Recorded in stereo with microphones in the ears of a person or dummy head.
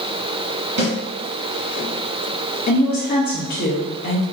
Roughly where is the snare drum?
Right.